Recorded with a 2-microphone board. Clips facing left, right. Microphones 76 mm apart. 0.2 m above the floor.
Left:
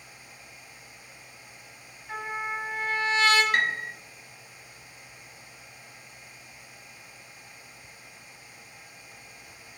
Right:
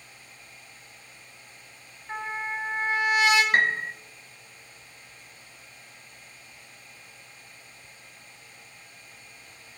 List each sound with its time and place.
2.1 s a trumpet: 20° right (ahead or behind), 1.6 m
3.5 s a piano: 35° right (ahead or behind), 0.7 m